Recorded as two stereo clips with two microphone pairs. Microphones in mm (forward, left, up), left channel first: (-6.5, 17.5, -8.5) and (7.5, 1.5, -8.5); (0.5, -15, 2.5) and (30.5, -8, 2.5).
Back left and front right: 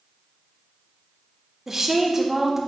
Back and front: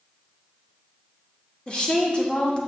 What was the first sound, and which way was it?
A woman speaking, 120° right.